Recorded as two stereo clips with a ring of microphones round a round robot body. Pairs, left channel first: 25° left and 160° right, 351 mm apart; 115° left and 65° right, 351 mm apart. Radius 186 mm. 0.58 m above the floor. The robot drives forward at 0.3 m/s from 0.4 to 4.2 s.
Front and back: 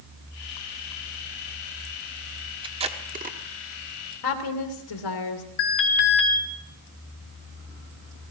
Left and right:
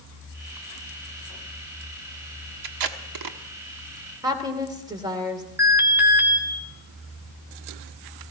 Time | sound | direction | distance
2.6 | tape being pulled | 80° right | 1.2 m
4.2 | a woman speaking | 10° left | 2.5 m
5.6 | an alarm | 15° left | 2.5 m